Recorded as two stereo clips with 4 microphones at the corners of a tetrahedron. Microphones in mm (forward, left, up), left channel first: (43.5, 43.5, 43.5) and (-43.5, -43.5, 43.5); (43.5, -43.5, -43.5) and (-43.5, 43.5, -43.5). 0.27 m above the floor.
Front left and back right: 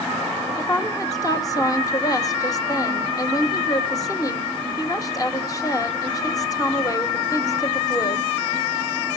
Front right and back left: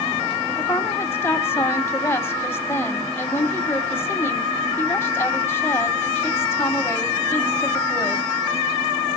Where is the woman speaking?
10° left, 1.3 m.